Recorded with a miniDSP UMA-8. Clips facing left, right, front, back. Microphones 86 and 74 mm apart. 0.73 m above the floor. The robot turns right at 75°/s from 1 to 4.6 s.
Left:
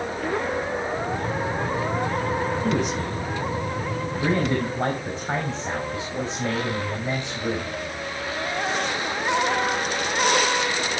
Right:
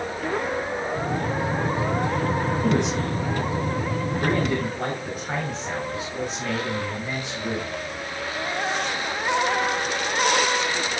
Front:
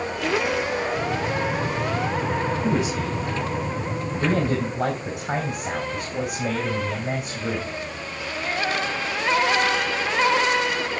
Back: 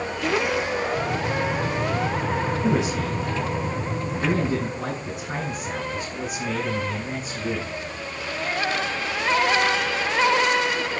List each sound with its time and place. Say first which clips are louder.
2.6 s a man speaking: right 2 dB, back 1 dB; 125° right, 4 m; by 7.7 s 25° left, 4 m